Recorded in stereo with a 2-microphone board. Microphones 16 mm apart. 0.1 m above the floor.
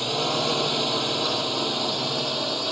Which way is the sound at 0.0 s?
5° right (ahead or behind).